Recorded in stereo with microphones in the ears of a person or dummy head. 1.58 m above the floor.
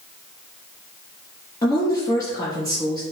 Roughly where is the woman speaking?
Centre.